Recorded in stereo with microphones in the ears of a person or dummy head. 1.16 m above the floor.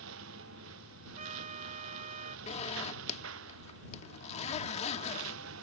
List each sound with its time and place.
0.0 s a lawn mower: 70° right (ahead or behind)
1.2 s a trumpet: 45° right (ahead or behind)
2.5 s a zipper: 30° left (ahead or behind)